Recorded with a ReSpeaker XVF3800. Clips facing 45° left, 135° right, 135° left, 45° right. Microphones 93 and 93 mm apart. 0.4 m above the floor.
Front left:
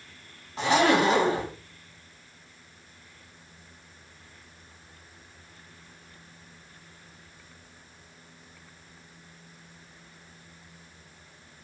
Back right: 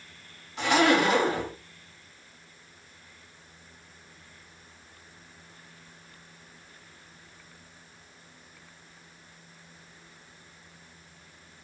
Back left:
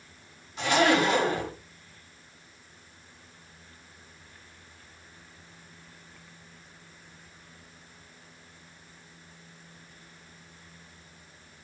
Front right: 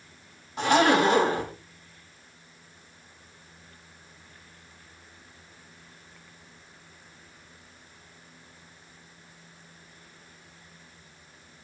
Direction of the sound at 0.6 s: 5° right.